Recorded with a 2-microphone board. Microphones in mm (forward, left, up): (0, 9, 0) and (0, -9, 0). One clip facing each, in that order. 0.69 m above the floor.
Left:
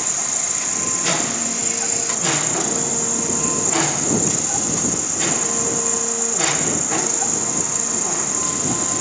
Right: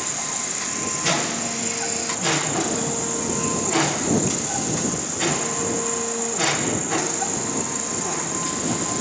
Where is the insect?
35° left (ahead or behind).